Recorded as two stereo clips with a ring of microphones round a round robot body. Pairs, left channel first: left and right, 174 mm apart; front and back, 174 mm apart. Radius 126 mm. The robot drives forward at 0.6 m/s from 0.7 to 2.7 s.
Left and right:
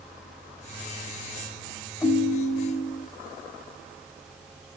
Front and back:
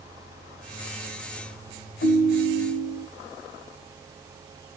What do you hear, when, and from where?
2.0 s a ringtone: 20° left, 1.4 m; by 3.1 s 25° left, 1.1 m